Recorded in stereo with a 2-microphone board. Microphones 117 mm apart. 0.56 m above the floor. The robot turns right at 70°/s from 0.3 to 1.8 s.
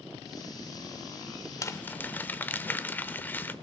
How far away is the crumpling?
About 0.8 m.